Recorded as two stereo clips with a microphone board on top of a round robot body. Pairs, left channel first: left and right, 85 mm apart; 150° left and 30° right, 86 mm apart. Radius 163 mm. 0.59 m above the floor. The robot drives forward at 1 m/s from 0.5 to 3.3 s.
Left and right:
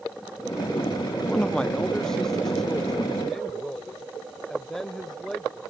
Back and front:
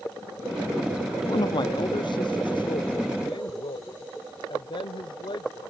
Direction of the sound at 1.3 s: 165° left.